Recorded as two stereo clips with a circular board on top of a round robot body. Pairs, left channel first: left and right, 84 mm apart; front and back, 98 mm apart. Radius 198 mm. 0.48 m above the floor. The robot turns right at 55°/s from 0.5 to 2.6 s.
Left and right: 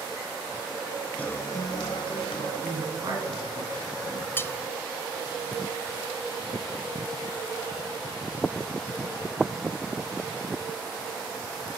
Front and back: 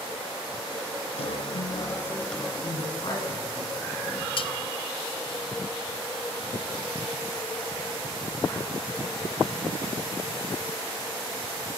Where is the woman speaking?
45° right, 9.5 m.